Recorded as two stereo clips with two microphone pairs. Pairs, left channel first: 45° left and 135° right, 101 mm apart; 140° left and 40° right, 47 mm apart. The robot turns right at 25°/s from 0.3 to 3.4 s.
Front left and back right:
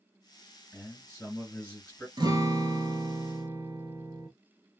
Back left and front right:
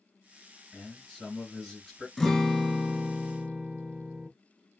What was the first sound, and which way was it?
A man speaking, 60° left.